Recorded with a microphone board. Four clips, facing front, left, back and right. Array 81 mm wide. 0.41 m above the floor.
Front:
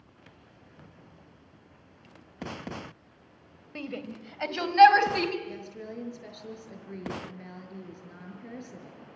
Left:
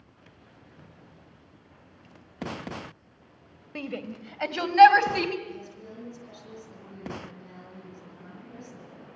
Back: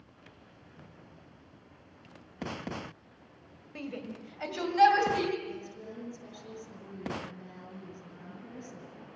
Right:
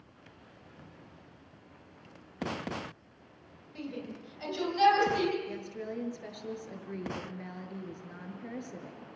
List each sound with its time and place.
3.8 s a shout: 70° left, 2 m; by 5.4 s 55° left, 3.5 m
5.5 s a woman speaking: 60° right, 5.5 m